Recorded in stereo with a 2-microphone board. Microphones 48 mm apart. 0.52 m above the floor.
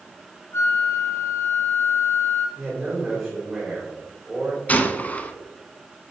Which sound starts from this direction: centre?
A man speaking, at 2.6 s.